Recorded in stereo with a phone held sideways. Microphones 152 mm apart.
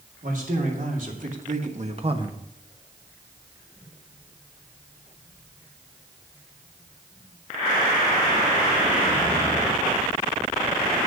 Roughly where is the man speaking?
Right.